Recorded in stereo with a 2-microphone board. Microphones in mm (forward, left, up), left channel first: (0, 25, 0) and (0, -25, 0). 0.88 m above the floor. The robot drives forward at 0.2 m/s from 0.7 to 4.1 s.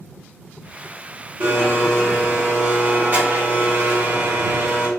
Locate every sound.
1.4 s a blender: 45° right (ahead or behind), 1.3 m